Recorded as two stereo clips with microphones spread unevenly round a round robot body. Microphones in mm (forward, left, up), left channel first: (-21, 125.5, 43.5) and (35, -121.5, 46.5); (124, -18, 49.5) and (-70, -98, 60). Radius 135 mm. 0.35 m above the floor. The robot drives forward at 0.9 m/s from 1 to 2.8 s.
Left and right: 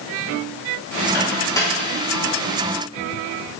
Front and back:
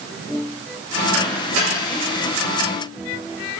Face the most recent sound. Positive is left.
turn(degrees=180)